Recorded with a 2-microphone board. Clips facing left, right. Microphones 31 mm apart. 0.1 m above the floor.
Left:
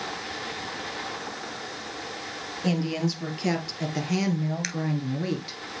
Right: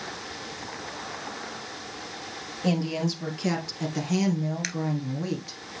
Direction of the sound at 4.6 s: Centre (ahead or behind).